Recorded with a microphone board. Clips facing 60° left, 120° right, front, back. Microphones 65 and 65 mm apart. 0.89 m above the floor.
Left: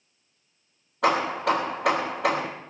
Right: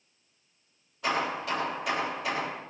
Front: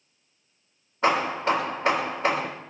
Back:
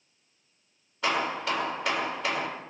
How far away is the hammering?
About 3 m.